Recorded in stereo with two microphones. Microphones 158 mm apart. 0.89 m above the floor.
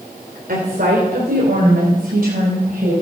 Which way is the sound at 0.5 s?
75° right (ahead or behind).